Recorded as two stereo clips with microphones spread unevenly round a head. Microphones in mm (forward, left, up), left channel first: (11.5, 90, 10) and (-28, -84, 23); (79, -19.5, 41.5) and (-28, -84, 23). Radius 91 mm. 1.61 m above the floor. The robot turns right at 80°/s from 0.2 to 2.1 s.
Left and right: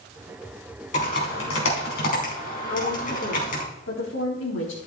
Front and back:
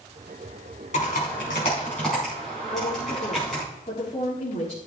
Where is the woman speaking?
85° left, 4 m.